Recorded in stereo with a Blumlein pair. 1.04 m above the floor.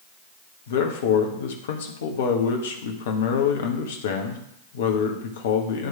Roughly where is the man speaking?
Ahead left.